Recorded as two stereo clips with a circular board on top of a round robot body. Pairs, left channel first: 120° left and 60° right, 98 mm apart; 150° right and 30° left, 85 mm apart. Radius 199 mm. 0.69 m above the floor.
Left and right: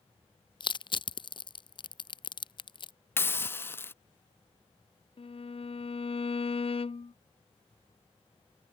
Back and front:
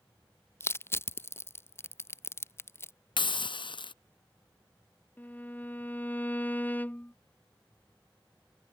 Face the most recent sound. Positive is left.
turn(degrees=140)